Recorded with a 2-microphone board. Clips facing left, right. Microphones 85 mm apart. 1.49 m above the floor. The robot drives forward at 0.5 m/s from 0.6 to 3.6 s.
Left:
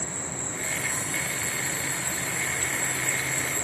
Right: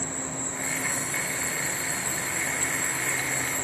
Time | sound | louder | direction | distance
0.0 | an insect | right 2 dB | 30° right (ahead or behind) | 5 m